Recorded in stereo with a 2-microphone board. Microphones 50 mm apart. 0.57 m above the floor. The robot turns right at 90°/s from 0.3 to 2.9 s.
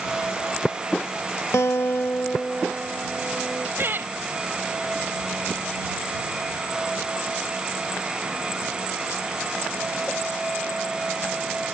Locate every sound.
1.5 s a guitar: 85° left; by 3.7 s 150° right
3.8 s laughter: 50° right (ahead or behind)